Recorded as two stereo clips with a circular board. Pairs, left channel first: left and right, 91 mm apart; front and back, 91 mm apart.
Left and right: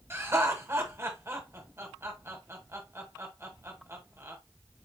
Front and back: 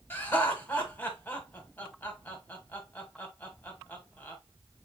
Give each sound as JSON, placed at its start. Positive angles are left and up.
{"t": 0.1, "sound": "laughter", "azimuth_deg": -55, "distance_m": 1.7}